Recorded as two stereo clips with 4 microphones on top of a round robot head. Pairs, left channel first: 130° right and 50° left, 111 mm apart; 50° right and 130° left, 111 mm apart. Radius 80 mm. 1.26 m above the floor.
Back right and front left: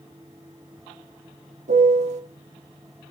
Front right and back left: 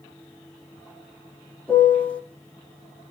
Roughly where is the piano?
Ahead left.